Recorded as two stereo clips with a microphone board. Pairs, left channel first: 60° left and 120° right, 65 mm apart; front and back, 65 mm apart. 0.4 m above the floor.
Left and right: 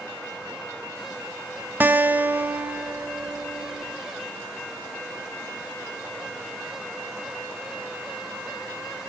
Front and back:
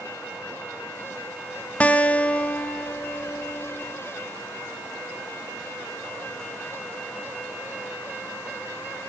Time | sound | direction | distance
1.8 | a guitar | 65° right | 1.1 m